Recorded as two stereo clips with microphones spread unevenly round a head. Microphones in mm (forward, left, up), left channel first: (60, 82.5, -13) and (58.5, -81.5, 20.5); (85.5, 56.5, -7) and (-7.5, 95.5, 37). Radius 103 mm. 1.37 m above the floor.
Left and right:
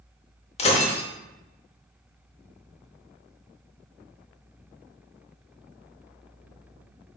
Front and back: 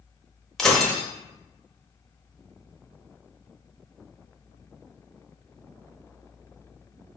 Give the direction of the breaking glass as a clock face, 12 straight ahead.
8 o'clock.